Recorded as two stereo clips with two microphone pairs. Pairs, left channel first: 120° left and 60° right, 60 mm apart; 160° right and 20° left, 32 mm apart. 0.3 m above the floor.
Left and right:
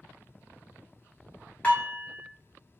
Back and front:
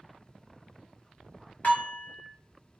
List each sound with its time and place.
1.6 s dishes clattering: 175° right, 1.2 m